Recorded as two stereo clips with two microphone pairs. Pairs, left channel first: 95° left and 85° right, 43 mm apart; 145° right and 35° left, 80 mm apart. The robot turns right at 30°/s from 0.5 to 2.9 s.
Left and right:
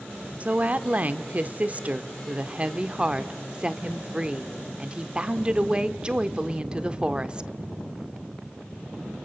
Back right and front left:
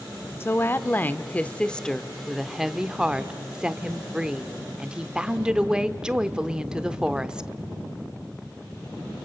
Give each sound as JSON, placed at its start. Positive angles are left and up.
{"t": 0.4, "sound": "a woman speaking", "azimuth_deg": -105, "distance_m": 0.8}